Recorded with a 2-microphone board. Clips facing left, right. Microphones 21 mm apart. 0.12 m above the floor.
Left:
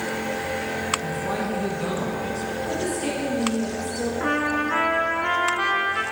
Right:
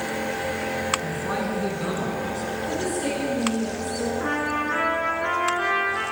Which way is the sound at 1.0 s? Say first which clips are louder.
Even; 25° right (ahead or behind).